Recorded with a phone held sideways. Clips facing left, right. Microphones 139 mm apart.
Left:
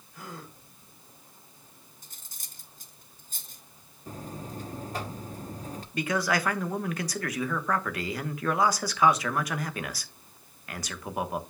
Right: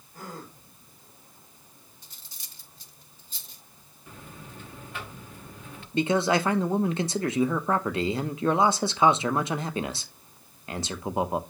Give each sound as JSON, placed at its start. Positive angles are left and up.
{"t": 0.1, "sound": "a gasp", "side_deg": -45, "distance_m": 4.0}
{"t": 2.0, "sound": "cutlery clinking", "side_deg": 50, "distance_m": 1.0}
{"t": 4.1, "sound": "a buzzer", "side_deg": 40, "distance_m": 0.8}
{"t": 5.9, "sound": "a man speaking", "side_deg": -30, "distance_m": 0.9}